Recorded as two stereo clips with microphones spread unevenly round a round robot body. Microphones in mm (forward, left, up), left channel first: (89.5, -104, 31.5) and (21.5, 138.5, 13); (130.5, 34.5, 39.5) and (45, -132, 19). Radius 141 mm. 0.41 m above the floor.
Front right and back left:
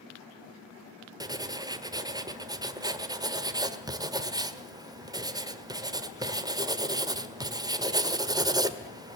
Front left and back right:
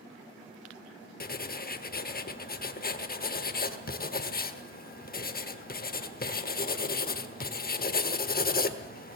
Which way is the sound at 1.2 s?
40° left.